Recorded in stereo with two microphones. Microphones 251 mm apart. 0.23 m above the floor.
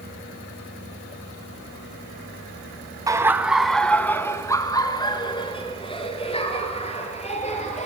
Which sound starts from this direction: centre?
Laughter, at 3.1 s.